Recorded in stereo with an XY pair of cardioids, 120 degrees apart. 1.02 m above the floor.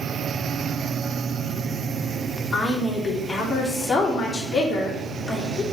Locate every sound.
2.5 s a woman speaking: 20° left, 2.5 m